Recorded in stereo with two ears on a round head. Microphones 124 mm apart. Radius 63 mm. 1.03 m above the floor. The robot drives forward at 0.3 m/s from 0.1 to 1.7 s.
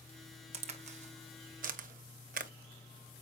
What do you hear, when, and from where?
0.5 s a crack: 45° right (ahead or behind), 1.0 m; by 2.5 s 60° right (ahead or behind), 0.8 m